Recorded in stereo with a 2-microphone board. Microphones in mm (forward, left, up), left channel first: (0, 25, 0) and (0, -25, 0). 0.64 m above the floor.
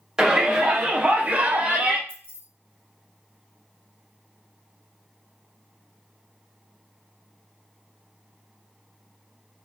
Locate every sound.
0.2 s a shout: 15° right (ahead or behind), 1.0 m; by 2.0 s 30° right (ahead or behind), 0.6 m
2.1 s keys jangling: 50° right (ahead or behind), 0.6 m